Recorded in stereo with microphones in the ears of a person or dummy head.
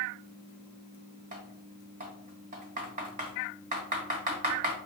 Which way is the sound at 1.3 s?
40° right (ahead or behind).